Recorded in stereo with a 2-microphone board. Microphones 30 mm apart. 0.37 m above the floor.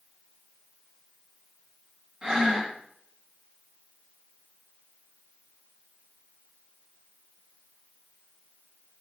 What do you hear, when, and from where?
2.2 s breathing: 30° right (ahead or behind), 0.7 m